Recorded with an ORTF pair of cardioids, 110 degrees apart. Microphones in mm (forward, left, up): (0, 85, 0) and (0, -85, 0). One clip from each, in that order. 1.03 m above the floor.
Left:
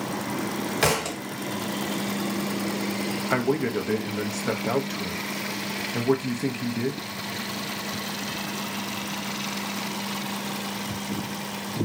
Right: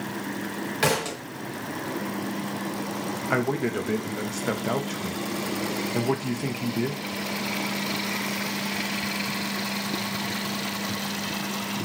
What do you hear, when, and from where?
0.8 s a thud: 15° left, 1.4 m
3.3 s a man speaking: straight ahead, 0.7 m